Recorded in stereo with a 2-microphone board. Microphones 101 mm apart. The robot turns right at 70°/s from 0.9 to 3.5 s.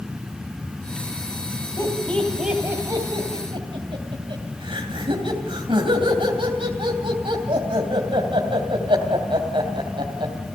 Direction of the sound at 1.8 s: 30° left (ahead or behind).